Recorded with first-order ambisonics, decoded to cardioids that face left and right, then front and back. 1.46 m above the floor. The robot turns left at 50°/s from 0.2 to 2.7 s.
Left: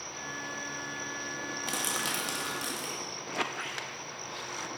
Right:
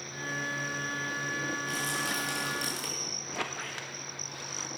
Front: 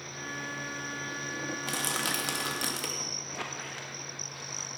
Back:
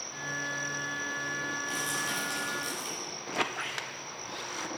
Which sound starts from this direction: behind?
A squeak, at 3.3 s.